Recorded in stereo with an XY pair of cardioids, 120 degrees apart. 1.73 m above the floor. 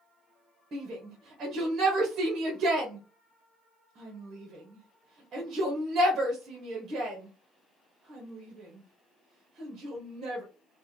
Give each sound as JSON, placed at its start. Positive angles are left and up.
{"t": 0.7, "sound": "a shout", "azimuth_deg": -50, "distance_m": 1.1}